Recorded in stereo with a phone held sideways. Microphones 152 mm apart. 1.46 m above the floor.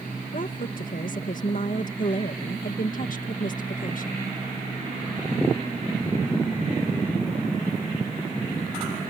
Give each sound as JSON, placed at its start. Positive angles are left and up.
{"t": 0.3, "sound": "a woman speaking", "side_deg": 65}